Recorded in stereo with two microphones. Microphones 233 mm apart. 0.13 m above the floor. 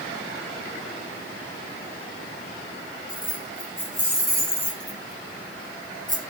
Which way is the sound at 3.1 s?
60° left (ahead or behind).